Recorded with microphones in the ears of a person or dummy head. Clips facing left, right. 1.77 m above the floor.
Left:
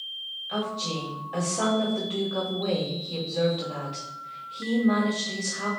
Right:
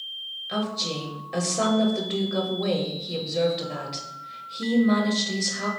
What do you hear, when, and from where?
0.5 s a woman speaking: 25° right (ahead or behind), 1.1 m